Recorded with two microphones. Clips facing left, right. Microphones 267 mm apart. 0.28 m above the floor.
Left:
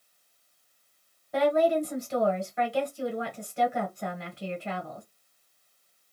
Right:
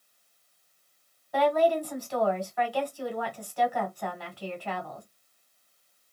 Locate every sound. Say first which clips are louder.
1.3 s a woman speaking: left 1 dB; 25° left (ahead or behind), 1.8 m